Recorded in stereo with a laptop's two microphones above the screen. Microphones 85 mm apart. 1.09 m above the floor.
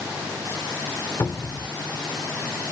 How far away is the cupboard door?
About 1.5 m.